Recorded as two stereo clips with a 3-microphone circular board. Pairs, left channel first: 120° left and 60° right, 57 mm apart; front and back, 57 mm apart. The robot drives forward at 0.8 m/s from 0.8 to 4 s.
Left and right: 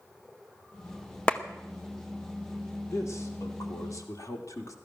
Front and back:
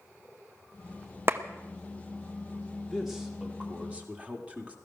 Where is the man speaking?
90° left, 1.9 m; by 4.8 s 115° left, 2 m.